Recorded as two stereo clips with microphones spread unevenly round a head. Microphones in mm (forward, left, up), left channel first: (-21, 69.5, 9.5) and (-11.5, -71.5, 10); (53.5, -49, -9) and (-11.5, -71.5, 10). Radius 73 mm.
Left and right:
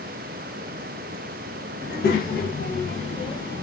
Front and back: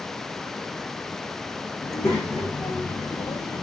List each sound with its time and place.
1.8 s a child speaking: 100° left, 1.2 m; by 3.6 s 30° left, 0.7 m